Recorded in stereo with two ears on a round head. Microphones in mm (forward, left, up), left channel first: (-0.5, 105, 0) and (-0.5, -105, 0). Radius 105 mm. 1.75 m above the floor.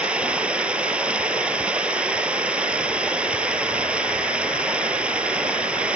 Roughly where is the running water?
Centre.